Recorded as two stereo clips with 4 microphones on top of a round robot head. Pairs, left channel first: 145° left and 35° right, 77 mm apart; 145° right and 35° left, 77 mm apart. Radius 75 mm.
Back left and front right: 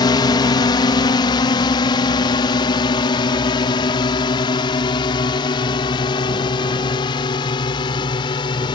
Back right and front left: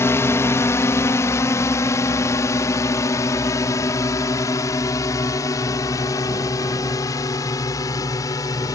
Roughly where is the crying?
I don't hear crying.